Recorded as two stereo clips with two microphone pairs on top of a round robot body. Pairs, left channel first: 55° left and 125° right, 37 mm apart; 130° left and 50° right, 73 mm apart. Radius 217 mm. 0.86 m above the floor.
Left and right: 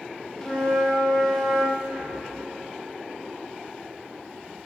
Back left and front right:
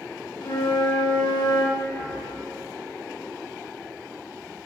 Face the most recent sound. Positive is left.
turn(degrees=-175)